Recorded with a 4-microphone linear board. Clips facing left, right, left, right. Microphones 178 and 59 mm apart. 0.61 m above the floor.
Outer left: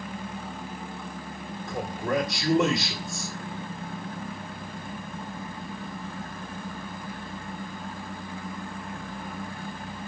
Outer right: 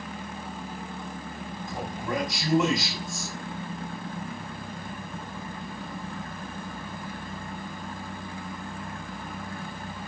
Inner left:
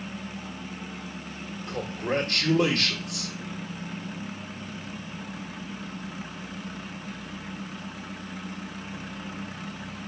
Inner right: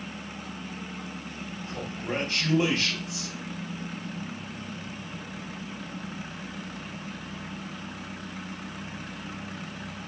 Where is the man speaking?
70° left (ahead or behind), 2.5 m.